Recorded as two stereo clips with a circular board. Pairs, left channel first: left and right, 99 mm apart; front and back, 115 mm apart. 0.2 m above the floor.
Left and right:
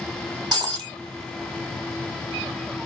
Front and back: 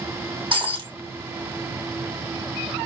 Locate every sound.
0.5 s breaking glass: 130° right, 3 m